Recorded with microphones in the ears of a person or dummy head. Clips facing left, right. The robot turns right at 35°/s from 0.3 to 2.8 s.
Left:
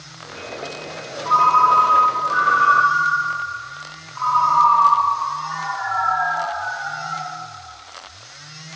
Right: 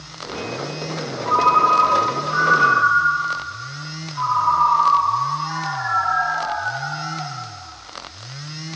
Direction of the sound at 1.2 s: 140° left.